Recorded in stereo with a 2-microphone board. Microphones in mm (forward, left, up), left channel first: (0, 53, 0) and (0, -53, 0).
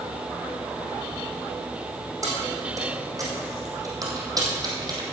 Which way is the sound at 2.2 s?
35° right (ahead or behind).